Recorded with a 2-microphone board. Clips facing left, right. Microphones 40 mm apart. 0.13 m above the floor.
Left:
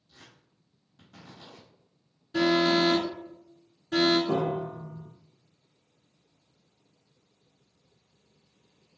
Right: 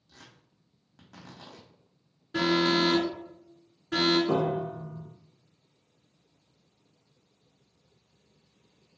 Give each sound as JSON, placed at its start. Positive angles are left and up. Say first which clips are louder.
{"t": 0.1, "sound": "tearing paper", "louder": "right 1 dB", "side_deg": -80, "distance_m": 1.3}
{"t": 2.3, "sound": "an alarm", "louder": "left 2 dB", "side_deg": -35, "distance_m": 1.3}
{"t": 4.3, "sound": "a piano", "louder": "right 1 dB", "side_deg": -75, "distance_m": 1.0}